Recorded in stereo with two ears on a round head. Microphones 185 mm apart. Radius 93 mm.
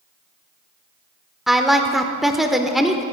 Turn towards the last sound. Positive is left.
turn(degrees=0)  # may be behind; listen again after turning